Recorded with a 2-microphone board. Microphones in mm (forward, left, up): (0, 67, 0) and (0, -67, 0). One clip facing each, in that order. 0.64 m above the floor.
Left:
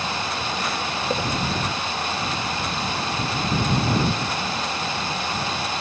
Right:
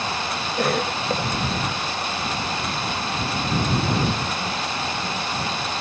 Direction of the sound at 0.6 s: 60° right (ahead or behind).